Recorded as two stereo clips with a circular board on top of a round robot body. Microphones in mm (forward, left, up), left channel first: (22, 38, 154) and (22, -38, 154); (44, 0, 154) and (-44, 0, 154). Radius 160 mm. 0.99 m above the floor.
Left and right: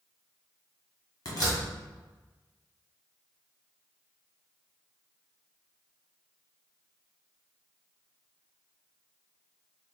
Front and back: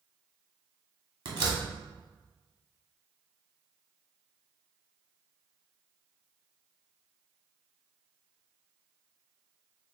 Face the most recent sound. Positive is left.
turn(degrees=140)